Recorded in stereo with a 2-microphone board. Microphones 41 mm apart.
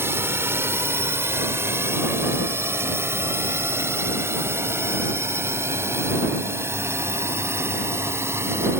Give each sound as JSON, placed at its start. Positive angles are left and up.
{"t": 0.0, "sound": "a drone", "side_deg": -70}